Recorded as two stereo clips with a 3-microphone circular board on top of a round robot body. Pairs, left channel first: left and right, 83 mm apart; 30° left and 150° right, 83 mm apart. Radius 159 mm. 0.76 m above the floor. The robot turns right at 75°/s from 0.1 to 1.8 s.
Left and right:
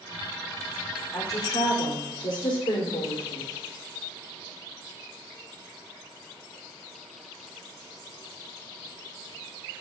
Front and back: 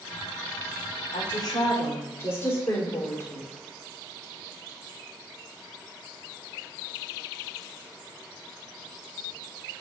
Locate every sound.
1.1 s a woman speaking: 35° left, 3 m; by 3.5 s 85° left, 3 m